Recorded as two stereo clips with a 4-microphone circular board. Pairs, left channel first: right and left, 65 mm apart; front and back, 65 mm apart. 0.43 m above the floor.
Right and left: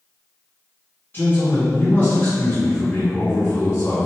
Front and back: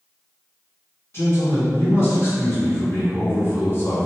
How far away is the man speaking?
About 1.9 m.